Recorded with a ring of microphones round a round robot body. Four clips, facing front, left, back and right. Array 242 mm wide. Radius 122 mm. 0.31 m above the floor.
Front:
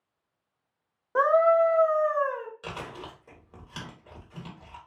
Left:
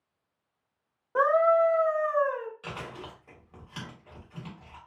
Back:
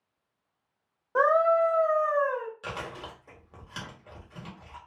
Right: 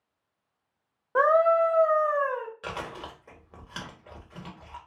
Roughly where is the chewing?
Right.